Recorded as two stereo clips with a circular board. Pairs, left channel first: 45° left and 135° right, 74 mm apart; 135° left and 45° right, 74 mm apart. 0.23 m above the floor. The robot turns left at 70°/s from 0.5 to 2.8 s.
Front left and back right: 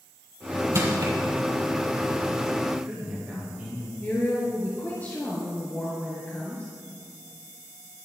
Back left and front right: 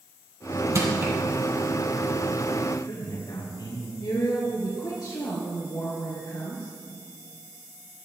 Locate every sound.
0.8 s crushing: 90° right, 4 m; by 1.1 s 115° right, 4 m
2.7 s a man speaking: 155° left, 5.5 m; by 3.9 s 145° left, 5.5 m
4.0 s a woman speaking: 110° left, 3 m